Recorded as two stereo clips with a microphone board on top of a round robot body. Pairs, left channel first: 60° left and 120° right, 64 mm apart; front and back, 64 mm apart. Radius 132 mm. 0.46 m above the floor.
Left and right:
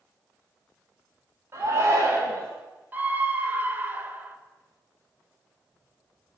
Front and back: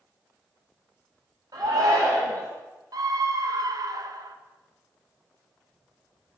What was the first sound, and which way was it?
A shout, 160° right.